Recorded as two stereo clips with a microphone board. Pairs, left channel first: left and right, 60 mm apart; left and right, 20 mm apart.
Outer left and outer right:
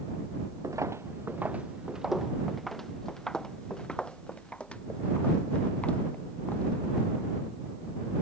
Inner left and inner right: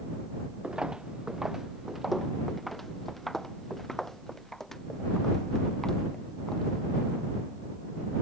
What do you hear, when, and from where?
0.6 s footsteps: 65° right (ahead or behind); by 7.3 s 25° left (ahead or behind)